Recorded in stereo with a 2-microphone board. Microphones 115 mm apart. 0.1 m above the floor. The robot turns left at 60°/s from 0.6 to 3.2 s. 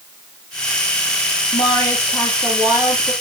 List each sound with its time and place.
1.5 s a woman speaking: 55° left, 3 m; by 3.1 s 40° right, 3 m